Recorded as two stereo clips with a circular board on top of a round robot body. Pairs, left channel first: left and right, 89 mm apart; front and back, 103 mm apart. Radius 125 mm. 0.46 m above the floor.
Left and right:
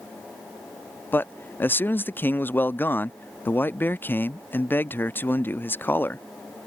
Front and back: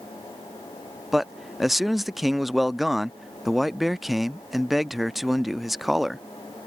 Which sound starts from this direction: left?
A man speaking, at 1.1 s.